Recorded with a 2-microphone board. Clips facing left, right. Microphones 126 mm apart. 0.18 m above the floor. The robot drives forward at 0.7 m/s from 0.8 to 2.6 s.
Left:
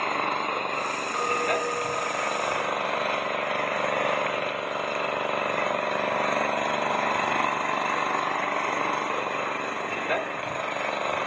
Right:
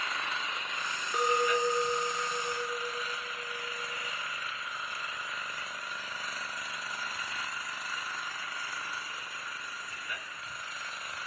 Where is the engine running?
55° left (ahead or behind); by 11.3 s 65° left (ahead or behind).